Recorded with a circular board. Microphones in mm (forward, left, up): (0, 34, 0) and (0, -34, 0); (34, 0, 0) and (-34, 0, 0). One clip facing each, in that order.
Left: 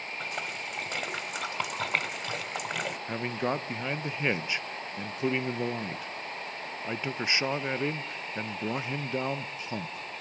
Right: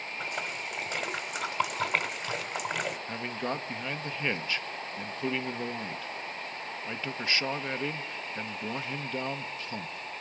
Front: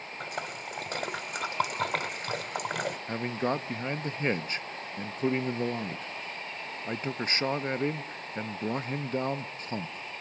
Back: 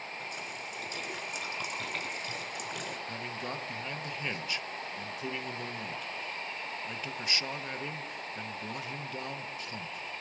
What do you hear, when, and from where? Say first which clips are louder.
0.2 s a splash: right 1 dB, front 4 dB; 5° right, 1.6 m
3.1 s a man speaking: left 3 dB, front 8 dB; 25° left, 0.8 m